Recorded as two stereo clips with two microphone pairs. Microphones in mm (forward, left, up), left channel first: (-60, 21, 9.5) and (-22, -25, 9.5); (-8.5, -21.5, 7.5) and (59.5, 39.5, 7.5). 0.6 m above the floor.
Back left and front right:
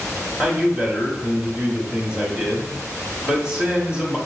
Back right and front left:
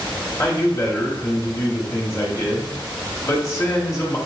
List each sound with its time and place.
0.4 s a man speaking: 110° right, 1.2 m